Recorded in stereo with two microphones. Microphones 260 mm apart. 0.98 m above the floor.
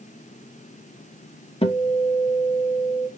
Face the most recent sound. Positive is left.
turn(degrees=20)  # may be behind; listen again after turning